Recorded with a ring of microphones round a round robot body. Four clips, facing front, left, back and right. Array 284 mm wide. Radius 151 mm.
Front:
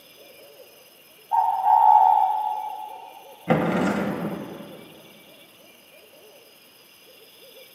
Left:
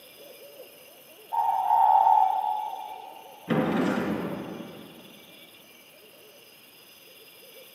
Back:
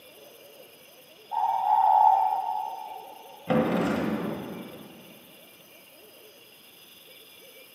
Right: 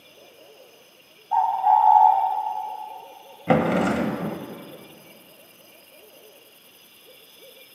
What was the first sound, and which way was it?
A bird, 65° right.